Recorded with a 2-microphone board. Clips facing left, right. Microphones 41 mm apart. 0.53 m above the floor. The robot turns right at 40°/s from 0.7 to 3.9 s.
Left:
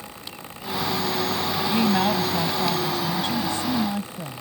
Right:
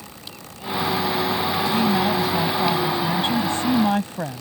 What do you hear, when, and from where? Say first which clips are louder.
1.6 s a woman speaking: even; 155° left; by 4.4 s 115° right